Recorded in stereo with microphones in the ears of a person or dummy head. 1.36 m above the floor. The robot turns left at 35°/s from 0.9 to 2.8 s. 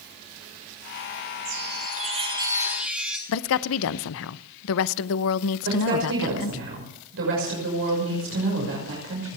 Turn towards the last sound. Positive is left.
turn(degrees=-70)  # may be behind; listen again after turning